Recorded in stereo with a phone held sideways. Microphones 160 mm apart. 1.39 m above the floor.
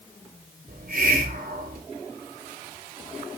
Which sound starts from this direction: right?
A hiss, at 0.7 s.